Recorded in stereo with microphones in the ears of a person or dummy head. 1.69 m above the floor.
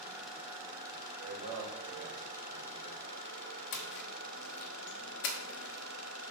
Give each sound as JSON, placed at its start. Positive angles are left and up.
{"t": 1.2, "sound": "a man speaking", "side_deg": -70, "distance_m": 1.3}
{"t": 3.7, "sound": "a splash", "side_deg": 65, "distance_m": 0.9}